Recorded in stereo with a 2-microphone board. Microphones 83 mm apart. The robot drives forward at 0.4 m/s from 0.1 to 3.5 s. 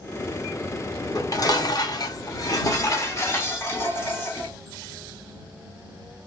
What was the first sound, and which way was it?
Dishes clattering, 40° left (ahead or behind).